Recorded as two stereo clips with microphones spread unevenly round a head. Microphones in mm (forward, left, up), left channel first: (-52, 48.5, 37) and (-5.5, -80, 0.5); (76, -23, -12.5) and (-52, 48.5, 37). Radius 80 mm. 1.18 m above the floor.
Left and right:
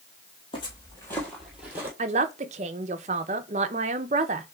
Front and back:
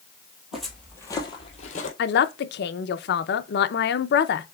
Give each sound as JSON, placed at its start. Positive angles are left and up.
{"t": 0.5, "sound": "footsteps", "azimuth_deg": 80, "distance_m": 1.8}
{"t": 2.0, "sound": "a man speaking", "azimuth_deg": -20, "distance_m": 0.6}